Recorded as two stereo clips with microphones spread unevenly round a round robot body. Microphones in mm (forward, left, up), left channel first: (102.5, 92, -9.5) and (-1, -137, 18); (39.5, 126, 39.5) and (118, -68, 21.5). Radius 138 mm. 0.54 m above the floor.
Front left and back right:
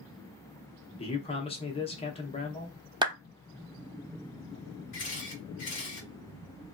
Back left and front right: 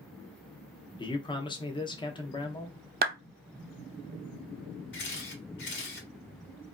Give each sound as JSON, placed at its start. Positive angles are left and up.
{"t": 1.0, "sound": "a man speaking", "azimuth_deg": 55, "distance_m": 0.7}
{"t": 3.0, "sound": "a clap", "azimuth_deg": -40, "distance_m": 0.7}
{"t": 4.9, "sound": "a camera shutter", "azimuth_deg": 110, "distance_m": 1.3}